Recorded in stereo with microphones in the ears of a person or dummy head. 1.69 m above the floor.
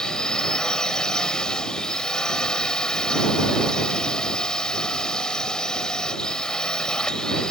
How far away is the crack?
I don't hear a crack.